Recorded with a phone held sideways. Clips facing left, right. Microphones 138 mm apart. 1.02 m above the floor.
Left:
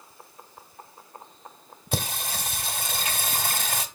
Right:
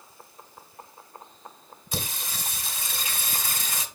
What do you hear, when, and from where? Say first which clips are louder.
1.9 s singing: left 5 dB; 55° left (ahead or behind), 1.2 m